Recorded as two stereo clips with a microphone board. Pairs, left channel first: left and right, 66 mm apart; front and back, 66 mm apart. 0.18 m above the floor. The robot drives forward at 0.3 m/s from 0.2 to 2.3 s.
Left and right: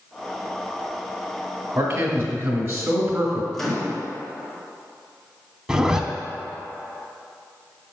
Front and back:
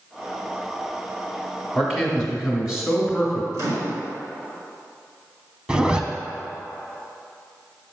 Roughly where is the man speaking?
Right.